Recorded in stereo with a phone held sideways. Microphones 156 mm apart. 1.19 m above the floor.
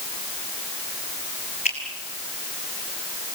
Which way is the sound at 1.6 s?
45° left (ahead or behind).